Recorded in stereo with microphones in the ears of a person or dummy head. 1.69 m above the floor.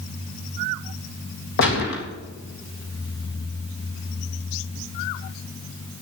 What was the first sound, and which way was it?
A gunshot, 65° left (ahead or behind).